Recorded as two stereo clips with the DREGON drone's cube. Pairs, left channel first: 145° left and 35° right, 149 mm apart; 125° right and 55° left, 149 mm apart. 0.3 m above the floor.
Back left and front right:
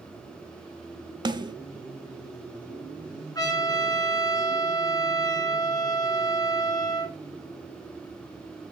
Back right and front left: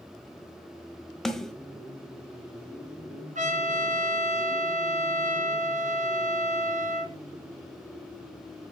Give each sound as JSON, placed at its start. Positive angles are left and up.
{"t": 1.2, "sound": "a snare drum", "azimuth_deg": -40, "distance_m": 1.3}
{"t": 3.4, "sound": "a trumpet", "azimuth_deg": 80, "distance_m": 3.0}